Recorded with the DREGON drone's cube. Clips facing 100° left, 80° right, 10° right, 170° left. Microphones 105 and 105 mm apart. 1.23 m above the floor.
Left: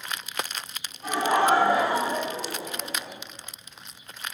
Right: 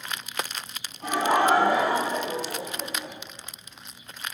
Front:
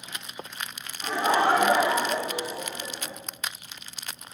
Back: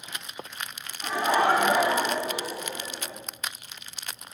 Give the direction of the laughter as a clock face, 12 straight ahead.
3 o'clock.